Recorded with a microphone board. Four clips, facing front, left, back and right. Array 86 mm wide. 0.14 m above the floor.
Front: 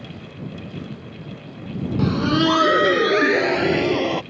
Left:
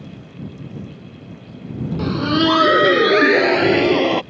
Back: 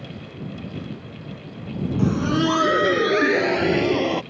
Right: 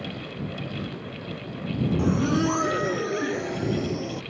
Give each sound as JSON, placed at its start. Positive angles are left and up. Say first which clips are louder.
{"t": 2.0, "sound": "laughter", "louder": "left 7 dB, front 2 dB", "azimuth_deg": 50}